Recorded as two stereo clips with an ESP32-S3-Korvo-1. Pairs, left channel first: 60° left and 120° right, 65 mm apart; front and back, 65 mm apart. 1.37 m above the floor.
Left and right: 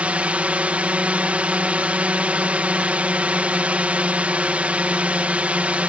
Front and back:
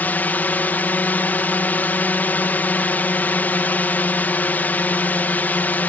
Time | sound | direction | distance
0.0 | a drone | 55° right | ?